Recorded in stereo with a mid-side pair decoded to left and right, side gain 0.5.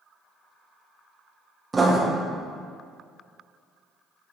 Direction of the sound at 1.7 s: 25° right.